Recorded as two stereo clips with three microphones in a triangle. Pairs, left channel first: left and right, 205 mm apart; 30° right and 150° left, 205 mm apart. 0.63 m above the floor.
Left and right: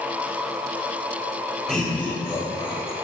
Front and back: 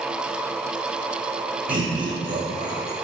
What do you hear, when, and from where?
1.7 s laughter: 175° left, 1.2 m; by 2.9 s 130° left, 0.9 m